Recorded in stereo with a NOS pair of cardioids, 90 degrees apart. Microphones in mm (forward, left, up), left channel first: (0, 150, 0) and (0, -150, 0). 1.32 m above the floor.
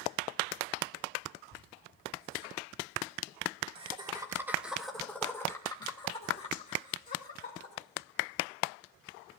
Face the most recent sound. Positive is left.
turn(degrees=35)